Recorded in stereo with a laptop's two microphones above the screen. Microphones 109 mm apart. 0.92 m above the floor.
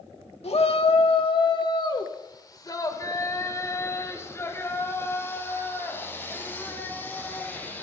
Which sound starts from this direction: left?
A shout, at 0.4 s.